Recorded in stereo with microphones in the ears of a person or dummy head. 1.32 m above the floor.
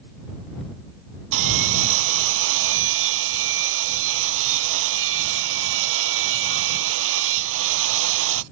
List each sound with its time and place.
1.3 s sawing: 70° right (ahead or behind)